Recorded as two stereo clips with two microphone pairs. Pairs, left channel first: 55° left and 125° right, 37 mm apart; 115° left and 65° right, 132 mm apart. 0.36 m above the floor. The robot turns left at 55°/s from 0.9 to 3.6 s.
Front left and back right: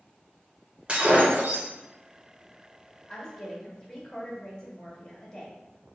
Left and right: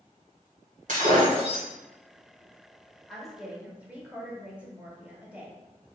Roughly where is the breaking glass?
Ahead right.